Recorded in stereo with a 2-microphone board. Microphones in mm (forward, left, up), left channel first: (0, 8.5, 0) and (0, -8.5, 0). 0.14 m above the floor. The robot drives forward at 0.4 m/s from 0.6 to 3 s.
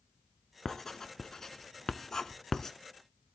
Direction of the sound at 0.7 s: 25° left (ahead or behind).